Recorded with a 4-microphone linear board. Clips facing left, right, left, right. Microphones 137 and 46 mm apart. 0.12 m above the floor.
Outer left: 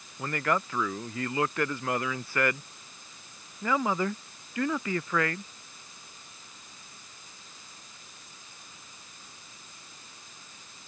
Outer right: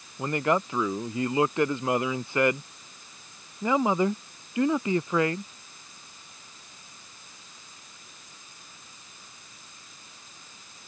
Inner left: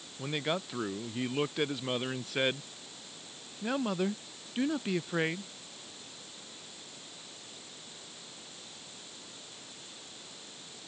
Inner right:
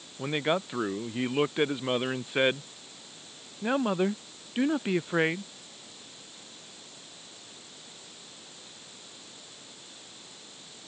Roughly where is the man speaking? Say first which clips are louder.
Outer right 4 dB, inner right 5 dB; right.